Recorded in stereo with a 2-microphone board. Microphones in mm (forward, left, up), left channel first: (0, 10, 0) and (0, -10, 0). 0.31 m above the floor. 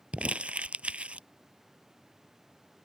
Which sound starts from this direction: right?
Crumpling, at 0.1 s.